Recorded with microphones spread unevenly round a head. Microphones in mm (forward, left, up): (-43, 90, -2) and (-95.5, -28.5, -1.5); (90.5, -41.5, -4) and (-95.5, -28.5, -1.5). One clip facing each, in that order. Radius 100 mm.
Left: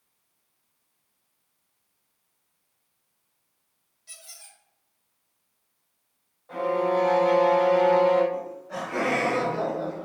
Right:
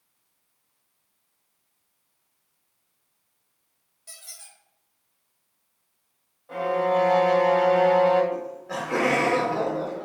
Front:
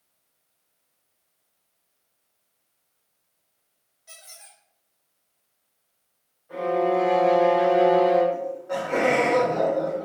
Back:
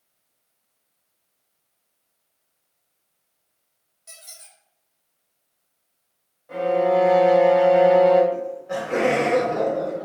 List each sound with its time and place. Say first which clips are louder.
4.1 s a squeak: right 1 dB, back 1 dB; 145° right, 3.5 m
6.5 s a violin: right 1 dB, back 3 dB; 165° left, 3.5 m
8.3 s laughter: right 1 dB, back 1 dB; 125° right, 1.8 m